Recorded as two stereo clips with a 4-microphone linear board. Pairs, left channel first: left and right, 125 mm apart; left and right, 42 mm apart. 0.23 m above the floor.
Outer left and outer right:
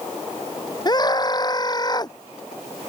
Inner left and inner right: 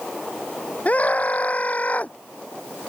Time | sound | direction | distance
0.8 | a scream | 35° left (ahead or behind) | ?